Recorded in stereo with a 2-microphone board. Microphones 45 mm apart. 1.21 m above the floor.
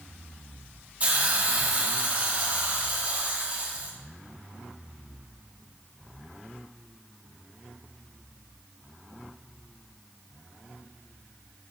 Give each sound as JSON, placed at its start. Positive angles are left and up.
{"t": 1.0, "sound": "a hiss", "side_deg": -30, "distance_m": 0.8}